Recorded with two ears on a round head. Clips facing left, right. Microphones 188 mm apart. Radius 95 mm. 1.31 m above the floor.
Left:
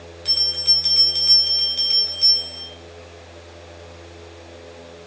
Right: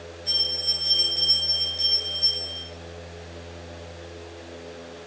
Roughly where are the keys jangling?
No keys jangling in this recording.